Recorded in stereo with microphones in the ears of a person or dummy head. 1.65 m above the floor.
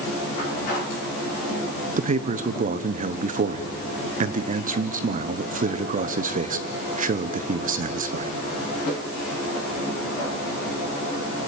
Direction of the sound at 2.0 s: 35° right (ahead or behind).